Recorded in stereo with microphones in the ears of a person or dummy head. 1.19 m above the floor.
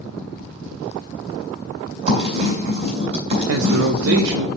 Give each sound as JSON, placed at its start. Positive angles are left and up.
{"t": 2.1, "sound": "writing", "side_deg": -40, "distance_m": 2.5}
{"t": 3.5, "sound": "a man speaking", "side_deg": -85, "distance_m": 0.6}